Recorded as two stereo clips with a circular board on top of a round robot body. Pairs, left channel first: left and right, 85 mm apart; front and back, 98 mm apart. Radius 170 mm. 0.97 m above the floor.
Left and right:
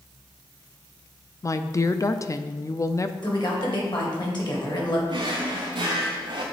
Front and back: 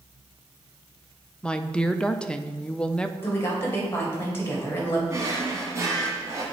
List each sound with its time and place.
1.4 s a woman speaking: 75° left, 0.6 m
3.2 s a woman speaking: 65° left, 2 m
5.1 s a drawer: 120° right, 0.6 m